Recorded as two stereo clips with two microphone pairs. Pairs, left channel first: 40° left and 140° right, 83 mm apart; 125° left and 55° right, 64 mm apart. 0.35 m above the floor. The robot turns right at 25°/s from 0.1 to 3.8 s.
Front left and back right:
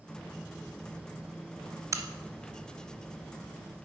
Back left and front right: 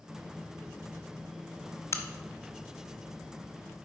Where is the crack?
165° left, 0.7 m; by 3.9 s 145° right, 0.7 m.